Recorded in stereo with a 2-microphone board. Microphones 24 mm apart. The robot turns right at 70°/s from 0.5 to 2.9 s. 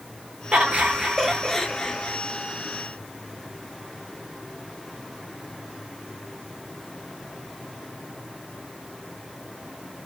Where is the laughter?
70° right, 1.2 m; by 2.2 s 50° left, 1.2 m.